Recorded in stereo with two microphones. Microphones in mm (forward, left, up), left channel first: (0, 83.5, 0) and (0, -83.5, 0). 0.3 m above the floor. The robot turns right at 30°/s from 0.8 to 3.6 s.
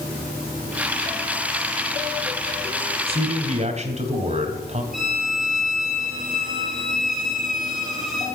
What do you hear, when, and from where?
3.1 s a man speaking: 35° right (ahead or behind), 1.8 m; by 4.8 s 40° right (ahead or behind), 1.8 m
4.9 s a violin: centre (ahead or behind), 5 m